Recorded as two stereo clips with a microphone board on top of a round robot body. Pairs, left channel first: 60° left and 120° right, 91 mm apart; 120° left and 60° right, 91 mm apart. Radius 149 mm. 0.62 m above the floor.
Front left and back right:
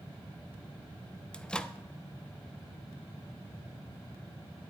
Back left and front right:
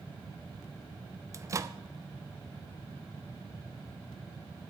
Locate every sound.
1.3 s a microwave: 15° right, 1.2 m